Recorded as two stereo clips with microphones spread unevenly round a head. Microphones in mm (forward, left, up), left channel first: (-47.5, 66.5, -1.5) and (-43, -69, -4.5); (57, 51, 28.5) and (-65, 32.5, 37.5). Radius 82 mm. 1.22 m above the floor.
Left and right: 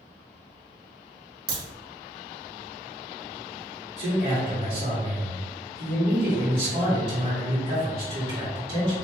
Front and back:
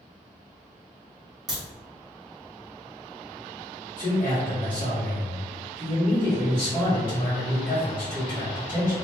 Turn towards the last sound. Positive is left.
turn(degrees=-55)